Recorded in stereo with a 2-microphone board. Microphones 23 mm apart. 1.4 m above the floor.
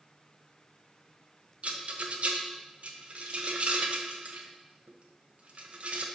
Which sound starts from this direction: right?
A rattle, at 1.6 s.